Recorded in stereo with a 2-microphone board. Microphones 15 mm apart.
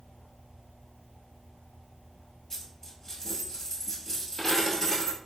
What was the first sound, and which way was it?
A dropped coin, 20° left (ahead or behind).